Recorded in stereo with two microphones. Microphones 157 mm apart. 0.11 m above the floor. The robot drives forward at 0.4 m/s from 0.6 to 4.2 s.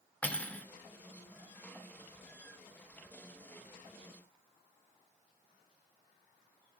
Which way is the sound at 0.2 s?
10° left (ahead or behind).